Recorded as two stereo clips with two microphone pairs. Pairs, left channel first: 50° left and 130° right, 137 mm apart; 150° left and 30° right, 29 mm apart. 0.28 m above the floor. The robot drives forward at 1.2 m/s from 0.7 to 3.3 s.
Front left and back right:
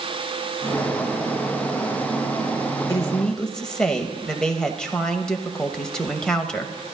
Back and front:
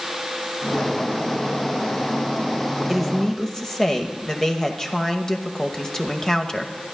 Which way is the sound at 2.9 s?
50° left.